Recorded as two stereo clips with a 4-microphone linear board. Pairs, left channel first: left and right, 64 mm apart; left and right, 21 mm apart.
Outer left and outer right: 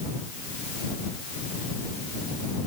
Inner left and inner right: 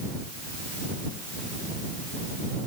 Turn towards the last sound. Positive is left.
No sound to turn to.